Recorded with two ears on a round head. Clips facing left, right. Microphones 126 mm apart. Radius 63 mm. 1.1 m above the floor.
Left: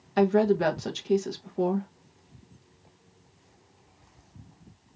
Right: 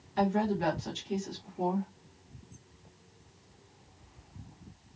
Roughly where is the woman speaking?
Left.